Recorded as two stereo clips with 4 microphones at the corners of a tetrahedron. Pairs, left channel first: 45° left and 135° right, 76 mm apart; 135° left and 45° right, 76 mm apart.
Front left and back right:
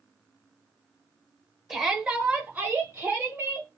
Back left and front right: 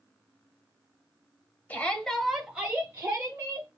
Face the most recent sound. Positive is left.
turn(degrees=-80)